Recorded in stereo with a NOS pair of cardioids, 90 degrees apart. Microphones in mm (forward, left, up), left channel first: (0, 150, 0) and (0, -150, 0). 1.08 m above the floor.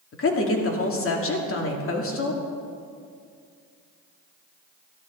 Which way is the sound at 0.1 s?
45° left.